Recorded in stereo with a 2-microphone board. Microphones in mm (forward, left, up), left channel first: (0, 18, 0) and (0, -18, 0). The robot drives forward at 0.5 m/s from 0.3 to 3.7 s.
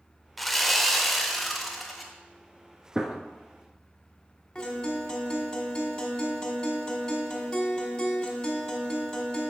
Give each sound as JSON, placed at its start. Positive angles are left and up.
{"t": 0.4, "sound": "sawing", "side_deg": 5, "distance_m": 0.6}
{"t": 3.0, "sound": "a gunshot", "side_deg": -20, "distance_m": 0.8}
{"t": 4.5, "sound": "a guitar", "side_deg": 15, "distance_m": 1.5}